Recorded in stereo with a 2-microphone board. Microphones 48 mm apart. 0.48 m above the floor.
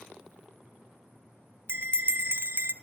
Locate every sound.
1.7 s a bell: 50° right (ahead or behind), 0.7 m